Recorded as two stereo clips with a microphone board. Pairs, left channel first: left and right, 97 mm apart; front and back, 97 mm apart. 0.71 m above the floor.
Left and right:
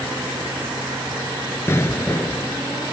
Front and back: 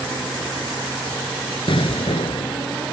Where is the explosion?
25° left.